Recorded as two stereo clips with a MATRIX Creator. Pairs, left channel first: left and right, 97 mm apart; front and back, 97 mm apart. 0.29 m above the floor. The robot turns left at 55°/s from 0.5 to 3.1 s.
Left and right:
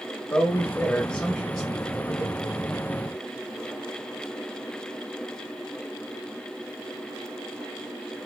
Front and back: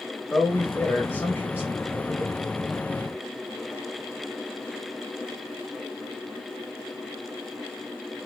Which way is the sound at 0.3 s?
65° left.